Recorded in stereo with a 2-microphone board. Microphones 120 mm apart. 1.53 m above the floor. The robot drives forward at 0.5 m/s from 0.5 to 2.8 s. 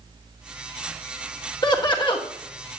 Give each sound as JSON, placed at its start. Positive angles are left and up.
{"t": 1.6, "sound": "laughter", "side_deg": 35, "distance_m": 1.9}